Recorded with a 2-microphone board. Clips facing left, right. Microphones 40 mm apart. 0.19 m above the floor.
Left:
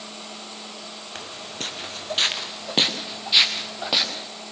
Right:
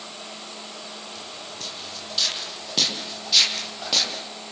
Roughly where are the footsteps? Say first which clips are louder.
Left 3 dB; left.